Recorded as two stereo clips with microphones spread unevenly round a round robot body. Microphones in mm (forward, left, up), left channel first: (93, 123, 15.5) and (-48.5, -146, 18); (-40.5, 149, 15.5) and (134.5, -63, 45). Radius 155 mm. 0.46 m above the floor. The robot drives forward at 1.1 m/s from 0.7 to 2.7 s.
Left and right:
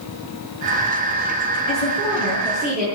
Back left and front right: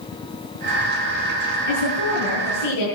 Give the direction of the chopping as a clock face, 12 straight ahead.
No chopping in this recording.